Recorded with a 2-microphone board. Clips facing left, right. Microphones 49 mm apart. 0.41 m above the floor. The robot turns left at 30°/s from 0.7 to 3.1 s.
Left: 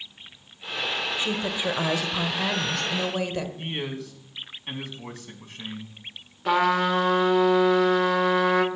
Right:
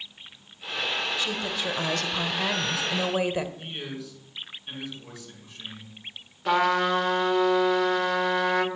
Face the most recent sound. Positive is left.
turn(degrees=5)  # may be behind; listen again after turning